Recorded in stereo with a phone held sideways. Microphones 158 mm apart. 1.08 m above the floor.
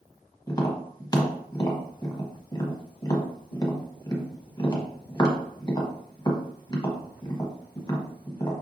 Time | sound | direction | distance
0.5 | tapping | 25° left (ahead or behind) | 1.0 m